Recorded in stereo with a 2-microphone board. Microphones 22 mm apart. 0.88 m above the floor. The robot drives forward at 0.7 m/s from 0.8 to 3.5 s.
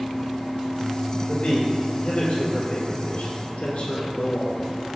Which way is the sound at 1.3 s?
45° left (ahead or behind).